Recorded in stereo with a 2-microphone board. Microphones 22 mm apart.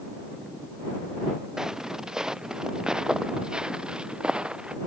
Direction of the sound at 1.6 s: 20° right (ahead or behind).